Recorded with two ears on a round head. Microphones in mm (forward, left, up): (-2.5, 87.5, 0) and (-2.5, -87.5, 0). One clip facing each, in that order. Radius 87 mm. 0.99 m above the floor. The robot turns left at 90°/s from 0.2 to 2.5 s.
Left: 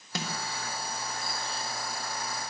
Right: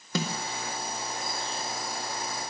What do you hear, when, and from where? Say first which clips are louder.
0.1 s a snare drum: right 5 dB; 75° right (ahead or behind), 1.6 m; by 0.4 s 65° right (ahead or behind), 1.6 m